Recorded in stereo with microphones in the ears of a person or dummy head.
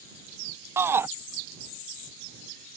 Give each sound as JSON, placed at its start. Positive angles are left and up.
{"t": 0.8, "sound": "a shout", "side_deg": -10}